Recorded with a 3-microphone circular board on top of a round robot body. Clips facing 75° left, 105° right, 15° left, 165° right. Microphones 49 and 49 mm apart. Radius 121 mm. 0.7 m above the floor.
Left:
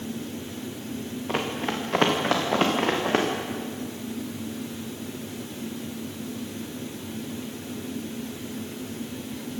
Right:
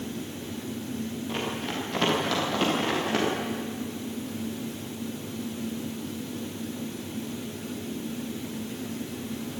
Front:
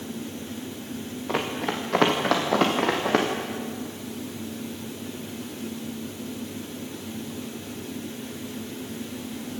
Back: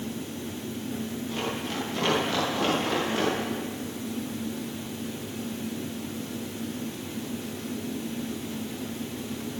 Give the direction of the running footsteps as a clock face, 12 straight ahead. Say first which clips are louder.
Left 6 dB, front 7 dB; 11 o'clock.